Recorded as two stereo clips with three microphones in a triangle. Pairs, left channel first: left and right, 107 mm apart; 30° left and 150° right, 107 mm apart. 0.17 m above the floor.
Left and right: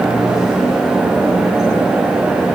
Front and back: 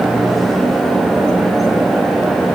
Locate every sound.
Only background noise.